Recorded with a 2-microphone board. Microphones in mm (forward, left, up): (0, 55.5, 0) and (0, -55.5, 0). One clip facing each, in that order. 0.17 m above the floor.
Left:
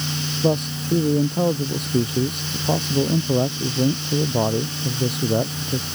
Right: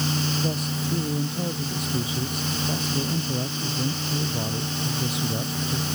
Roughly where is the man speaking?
Left.